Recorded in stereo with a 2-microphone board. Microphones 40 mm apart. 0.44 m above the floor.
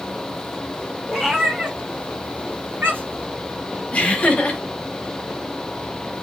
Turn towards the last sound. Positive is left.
turn(degrees=30)  # may be behind; listen again after turning